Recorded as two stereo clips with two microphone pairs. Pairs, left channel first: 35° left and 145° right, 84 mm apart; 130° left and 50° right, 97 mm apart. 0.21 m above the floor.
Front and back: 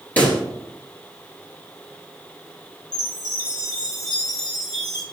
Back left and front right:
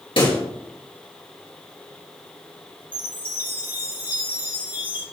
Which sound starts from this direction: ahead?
A chime, at 2.9 s.